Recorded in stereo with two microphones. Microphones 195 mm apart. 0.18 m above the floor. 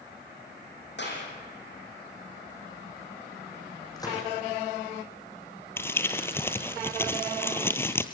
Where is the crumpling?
10° left (ahead or behind), 1.4 m.